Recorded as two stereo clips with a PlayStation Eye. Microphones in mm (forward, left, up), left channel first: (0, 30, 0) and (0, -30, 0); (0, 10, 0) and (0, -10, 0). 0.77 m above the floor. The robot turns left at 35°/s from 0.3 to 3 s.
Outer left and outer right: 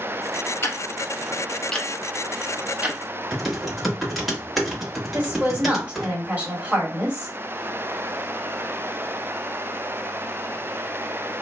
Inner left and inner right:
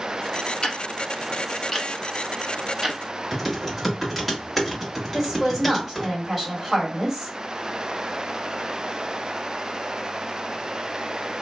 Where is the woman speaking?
25° right (ahead or behind), 1.7 m.